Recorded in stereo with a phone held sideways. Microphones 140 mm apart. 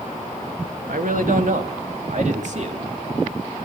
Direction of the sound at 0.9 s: 75° right (ahead or behind).